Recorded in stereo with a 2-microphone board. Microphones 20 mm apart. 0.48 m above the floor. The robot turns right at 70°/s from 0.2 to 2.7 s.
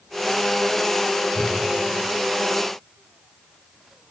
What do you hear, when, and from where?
1.3 s a whoosh: 50° left (ahead or behind), 4.5 m; by 1.6 s 70° left (ahead or behind), 4.5 m